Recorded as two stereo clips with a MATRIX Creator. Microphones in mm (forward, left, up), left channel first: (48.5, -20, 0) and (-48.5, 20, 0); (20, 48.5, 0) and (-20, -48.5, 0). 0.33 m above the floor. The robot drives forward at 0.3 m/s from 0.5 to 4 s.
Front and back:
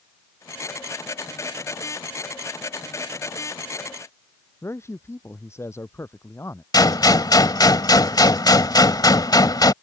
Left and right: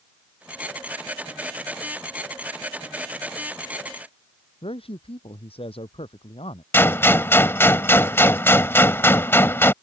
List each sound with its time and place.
4.6 s a man speaking: 40° left
6.7 s a gunshot: 10° left